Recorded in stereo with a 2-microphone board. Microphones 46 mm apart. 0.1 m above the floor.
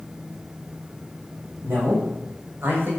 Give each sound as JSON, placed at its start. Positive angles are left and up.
{"t": 1.6, "sound": "a man speaking", "side_deg": -55, "distance_m": 6.5}